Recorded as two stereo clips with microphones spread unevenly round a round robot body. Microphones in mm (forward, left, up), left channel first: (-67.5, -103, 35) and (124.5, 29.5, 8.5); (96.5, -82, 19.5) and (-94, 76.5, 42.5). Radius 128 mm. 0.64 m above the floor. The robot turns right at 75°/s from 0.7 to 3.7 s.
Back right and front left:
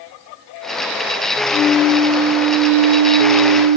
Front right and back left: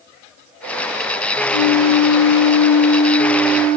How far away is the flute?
About 9.5 m.